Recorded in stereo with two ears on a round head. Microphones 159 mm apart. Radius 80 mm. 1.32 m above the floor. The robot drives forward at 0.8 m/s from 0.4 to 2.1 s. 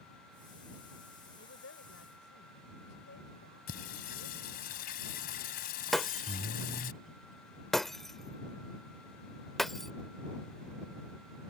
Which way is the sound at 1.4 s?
85° left.